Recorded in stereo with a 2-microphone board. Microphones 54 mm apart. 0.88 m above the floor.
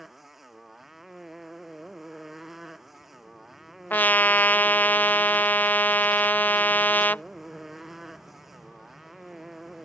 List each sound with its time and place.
0.0 s a motorcycle: 5° right (ahead or behind)
3.9 s a trumpet: 35° left (ahead or behind)